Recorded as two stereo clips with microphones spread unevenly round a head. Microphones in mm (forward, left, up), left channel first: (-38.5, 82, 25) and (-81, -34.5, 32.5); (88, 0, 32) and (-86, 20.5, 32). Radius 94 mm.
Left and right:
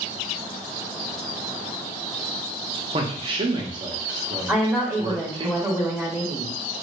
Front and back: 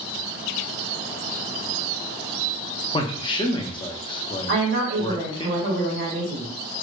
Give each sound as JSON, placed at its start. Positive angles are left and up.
{"t": 2.9, "sound": "a man speaking", "azimuth_deg": -65, "distance_m": 0.6}
{"t": 4.5, "sound": "a woman speaking", "azimuth_deg": 160, "distance_m": 1.8}